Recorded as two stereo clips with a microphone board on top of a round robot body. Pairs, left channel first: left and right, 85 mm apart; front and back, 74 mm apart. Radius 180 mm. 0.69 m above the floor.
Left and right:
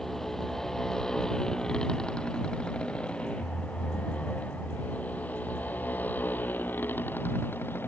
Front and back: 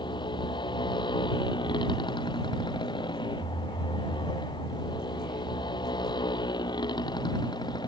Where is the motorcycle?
5° left; by 7.9 s 25° left.